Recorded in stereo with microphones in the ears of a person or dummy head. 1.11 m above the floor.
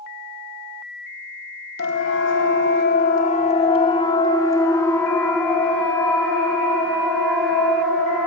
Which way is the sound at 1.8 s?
60° left (ahead or behind).